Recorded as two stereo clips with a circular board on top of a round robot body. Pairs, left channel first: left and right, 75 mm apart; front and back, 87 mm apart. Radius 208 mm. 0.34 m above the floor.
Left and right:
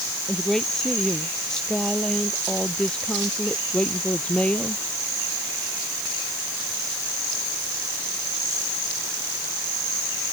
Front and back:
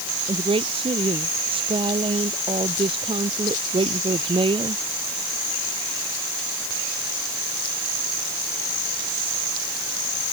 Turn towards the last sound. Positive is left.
turn(degrees=165)